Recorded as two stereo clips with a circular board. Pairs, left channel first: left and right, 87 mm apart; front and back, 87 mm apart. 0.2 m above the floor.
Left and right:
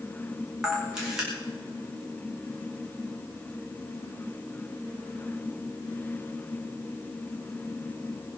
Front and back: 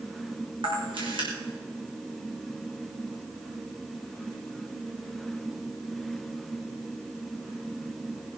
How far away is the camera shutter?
About 5 m.